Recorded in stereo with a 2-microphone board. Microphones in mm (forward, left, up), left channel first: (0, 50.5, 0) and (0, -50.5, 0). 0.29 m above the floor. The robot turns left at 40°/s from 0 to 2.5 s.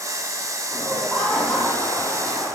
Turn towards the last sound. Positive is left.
turn(degrees=105)